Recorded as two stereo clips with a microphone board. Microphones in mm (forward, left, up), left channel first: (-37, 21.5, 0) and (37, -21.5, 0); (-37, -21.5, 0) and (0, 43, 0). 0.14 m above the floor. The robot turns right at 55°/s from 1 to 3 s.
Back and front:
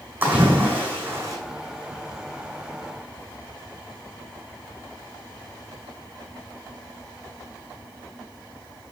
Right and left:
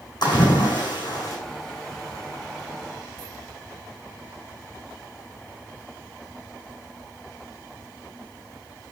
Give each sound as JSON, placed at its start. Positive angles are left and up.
{"t": 0.2, "sound": "a splash", "azimuth_deg": -95, "distance_m": 4.5}